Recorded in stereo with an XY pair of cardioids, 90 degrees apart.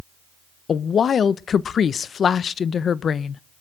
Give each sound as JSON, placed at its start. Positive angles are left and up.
{"t": 0.7, "sound": "a woman speaking", "azimuth_deg": 55, "distance_m": 0.8}